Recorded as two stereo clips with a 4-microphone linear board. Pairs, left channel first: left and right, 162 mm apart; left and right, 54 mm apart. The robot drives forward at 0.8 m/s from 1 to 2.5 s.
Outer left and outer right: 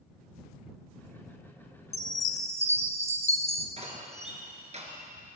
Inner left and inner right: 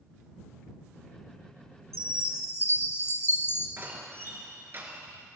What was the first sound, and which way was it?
A chime, 70° left (ahead or behind).